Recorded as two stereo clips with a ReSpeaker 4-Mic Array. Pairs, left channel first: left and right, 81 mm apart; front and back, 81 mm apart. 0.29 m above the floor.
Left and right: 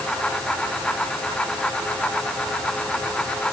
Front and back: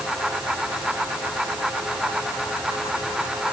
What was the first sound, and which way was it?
Only background noise.